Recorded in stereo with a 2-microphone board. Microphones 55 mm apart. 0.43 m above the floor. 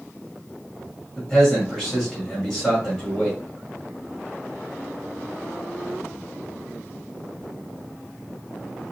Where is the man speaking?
10° left (ahead or behind), 2 m.